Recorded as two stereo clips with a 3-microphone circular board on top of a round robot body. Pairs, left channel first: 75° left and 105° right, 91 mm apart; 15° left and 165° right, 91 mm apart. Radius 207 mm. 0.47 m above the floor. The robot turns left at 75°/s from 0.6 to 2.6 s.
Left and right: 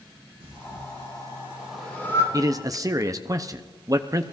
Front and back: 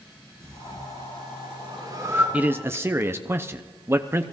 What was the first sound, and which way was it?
Breathing, 110° right.